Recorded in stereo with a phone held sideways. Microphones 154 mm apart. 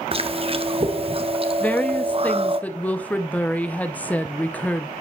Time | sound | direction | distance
0.1 | chewing | 40° right (ahead or behind) | 0.6 m
1.6 | a woman speaking | 10° left (ahead or behind) | 0.6 m